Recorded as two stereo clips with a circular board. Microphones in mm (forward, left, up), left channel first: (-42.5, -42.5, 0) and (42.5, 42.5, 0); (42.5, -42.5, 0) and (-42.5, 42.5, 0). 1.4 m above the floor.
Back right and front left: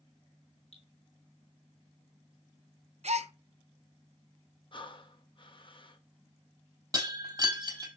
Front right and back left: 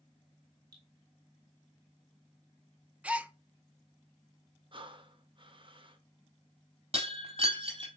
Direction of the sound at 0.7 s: 165° right.